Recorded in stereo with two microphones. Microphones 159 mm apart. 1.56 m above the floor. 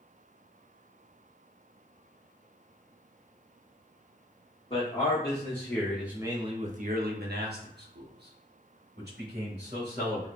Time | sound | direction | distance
4.7 | a man speaking | 30° left (ahead or behind) | 1.1 m